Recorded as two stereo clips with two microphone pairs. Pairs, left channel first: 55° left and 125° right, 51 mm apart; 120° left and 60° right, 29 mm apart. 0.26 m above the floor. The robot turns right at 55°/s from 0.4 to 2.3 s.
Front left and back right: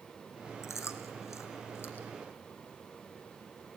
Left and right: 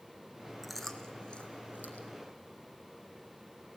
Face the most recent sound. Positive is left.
turn(degrees=125)